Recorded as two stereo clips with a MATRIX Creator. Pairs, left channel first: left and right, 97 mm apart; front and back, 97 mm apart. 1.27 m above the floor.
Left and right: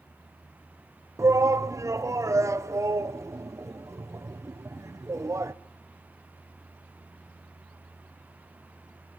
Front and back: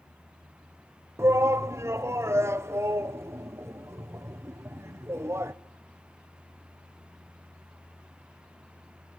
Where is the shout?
130° right, 0.7 m.